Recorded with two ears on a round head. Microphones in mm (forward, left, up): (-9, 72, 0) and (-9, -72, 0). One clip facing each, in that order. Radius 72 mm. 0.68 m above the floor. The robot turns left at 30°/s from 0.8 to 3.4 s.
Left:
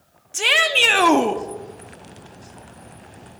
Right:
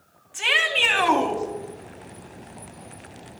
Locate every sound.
0.3 s a shout: 50° left (ahead or behind), 0.9 m